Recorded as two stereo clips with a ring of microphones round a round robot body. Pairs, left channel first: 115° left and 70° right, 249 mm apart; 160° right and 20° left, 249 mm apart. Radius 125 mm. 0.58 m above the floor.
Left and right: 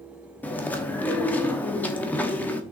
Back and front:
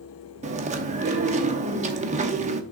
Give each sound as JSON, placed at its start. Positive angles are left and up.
{"t": 0.4, "sound": "chewing", "azimuth_deg": 35, "distance_m": 0.9}